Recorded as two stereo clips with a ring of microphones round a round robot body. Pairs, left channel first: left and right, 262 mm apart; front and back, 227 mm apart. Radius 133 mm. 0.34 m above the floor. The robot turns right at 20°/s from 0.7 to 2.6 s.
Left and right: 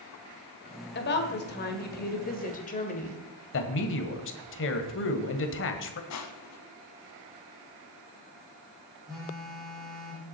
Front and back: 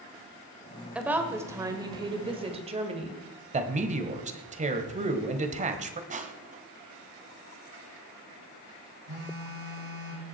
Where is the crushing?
120° left, 1.2 m.